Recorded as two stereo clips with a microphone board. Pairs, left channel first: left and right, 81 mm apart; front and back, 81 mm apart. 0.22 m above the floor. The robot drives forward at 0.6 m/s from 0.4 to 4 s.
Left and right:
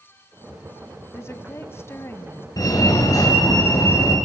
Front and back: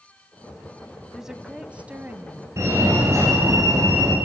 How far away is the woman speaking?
About 1.8 m.